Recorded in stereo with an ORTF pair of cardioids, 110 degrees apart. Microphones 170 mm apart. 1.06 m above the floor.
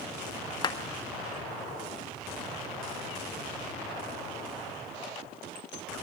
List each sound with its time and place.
0.6 s a clap: 25° left, 1.6 m